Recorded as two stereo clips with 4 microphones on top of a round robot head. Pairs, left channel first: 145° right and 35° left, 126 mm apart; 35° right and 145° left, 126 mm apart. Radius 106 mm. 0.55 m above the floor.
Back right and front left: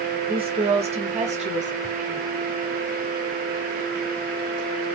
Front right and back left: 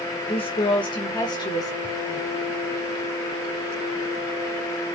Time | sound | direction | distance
0.3 | a woman speaking | straight ahead | 1.5 m
1.8 | ticking | 5° right | 4 m